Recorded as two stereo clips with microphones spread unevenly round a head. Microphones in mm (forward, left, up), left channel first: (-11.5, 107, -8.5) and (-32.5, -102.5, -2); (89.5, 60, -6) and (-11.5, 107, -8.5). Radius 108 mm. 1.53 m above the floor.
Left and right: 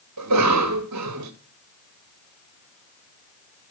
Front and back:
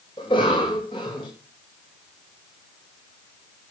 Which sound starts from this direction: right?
A cough, at 0.2 s.